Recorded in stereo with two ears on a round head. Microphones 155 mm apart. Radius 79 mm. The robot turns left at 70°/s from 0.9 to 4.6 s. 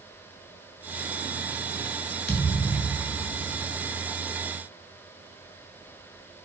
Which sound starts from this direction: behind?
A thud, at 2.3 s.